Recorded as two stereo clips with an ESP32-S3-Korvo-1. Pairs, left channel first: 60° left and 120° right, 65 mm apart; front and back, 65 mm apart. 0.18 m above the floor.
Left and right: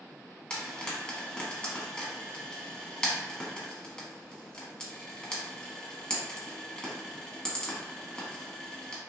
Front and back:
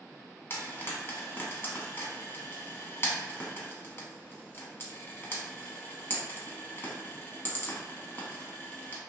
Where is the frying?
5° right, 0.9 m.